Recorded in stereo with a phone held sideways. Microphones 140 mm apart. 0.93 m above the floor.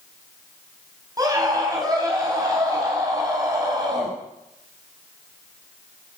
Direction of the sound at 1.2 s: 25° right (ahead or behind).